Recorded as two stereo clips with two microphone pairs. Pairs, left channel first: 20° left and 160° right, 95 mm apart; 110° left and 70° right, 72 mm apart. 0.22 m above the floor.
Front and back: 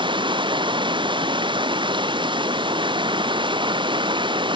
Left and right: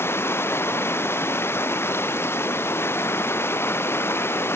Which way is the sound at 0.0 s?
170° left.